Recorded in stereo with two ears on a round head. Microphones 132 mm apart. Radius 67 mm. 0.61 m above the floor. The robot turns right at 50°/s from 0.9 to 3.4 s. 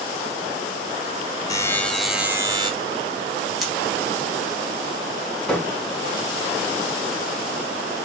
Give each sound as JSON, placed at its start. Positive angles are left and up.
{"t": 1.5, "sound": "a buzzer", "azimuth_deg": 155, "distance_m": 1.4}
{"t": 3.6, "sound": "cutlery clinking", "side_deg": 0, "distance_m": 1.9}
{"t": 5.5, "sound": "hammering", "side_deg": 5, "distance_m": 3.5}